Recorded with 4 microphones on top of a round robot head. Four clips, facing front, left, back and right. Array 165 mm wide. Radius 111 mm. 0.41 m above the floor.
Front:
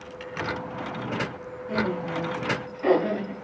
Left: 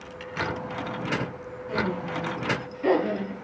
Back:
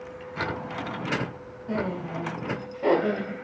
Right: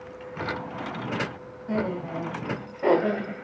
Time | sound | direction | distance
1.7 | laughter | 125° right | 3.5 m